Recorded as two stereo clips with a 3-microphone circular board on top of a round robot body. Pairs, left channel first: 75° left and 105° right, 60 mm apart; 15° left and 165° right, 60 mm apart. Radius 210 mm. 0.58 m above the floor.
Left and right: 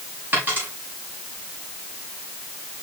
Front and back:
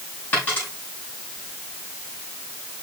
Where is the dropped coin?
45° right, 7.5 m.